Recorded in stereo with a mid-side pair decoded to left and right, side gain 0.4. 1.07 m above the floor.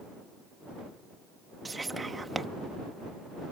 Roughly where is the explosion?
I don't hear an explosion.